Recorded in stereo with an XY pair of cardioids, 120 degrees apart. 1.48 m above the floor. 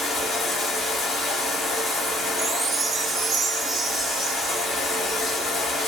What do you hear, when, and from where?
0.0 s running water: 40° left, 1.9 m
2.4 s a chime: 25° right, 0.6 m